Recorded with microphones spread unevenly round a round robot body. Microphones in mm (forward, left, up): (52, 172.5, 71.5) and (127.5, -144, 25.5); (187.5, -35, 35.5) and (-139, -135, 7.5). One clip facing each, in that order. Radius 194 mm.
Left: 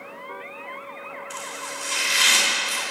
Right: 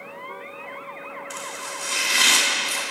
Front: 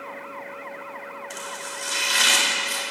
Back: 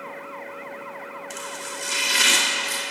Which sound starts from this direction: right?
Chopping, at 1.3 s.